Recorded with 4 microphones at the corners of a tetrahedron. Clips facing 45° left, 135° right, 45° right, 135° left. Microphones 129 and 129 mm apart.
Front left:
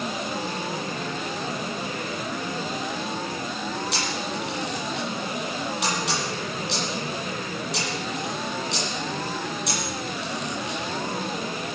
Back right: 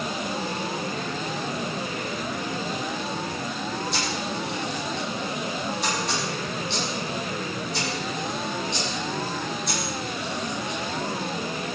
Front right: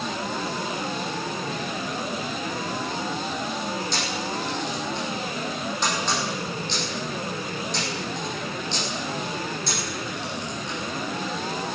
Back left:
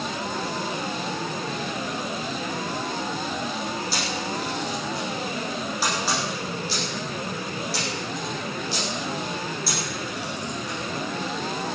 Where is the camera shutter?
50° left, 9 m.